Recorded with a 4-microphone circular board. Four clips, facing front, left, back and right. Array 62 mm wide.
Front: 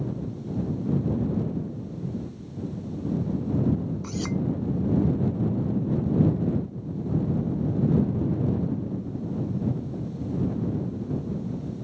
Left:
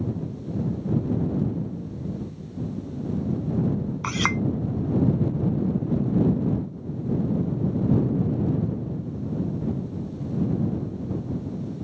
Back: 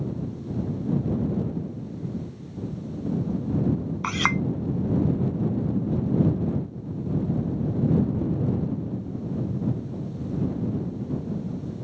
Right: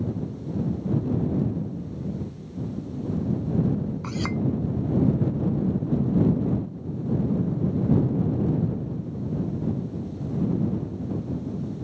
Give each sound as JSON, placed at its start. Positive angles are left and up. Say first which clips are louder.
{"t": 4.0, "sound": "a clink", "louder": "left 3 dB, back 9 dB", "azimuth_deg": 150}